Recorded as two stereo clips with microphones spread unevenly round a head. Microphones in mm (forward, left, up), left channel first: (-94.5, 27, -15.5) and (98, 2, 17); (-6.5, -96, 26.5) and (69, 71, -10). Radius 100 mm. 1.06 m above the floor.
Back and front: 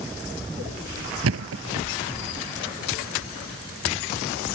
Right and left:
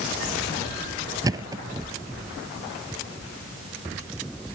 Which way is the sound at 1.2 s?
5° right.